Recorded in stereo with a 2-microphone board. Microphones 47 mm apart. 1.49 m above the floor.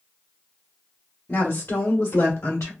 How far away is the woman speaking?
About 1.3 m.